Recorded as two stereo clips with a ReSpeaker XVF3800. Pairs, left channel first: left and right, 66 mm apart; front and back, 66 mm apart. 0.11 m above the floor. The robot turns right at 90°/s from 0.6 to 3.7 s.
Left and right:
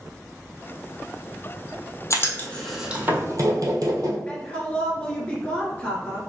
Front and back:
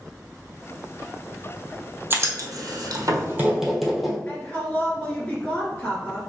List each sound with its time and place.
2.1 s writing: 125° left, 1.5 m; by 4.2 s 90° right, 1.5 m
4.3 s a woman speaking: 40° left, 1.6 m